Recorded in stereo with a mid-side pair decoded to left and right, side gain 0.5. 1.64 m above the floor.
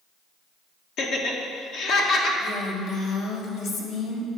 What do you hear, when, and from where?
1.0 s laughter: 65° left, 1.6 m
2.4 s a woman speaking: 65° left, 1.9 m